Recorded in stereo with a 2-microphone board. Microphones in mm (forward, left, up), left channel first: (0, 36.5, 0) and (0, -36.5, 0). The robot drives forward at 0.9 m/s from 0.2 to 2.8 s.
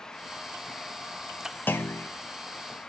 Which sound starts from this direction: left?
A clunk, at 1.7 s.